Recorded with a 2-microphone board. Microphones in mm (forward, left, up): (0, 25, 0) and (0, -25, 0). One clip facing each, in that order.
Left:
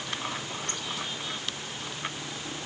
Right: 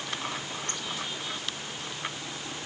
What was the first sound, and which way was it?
Only background noise.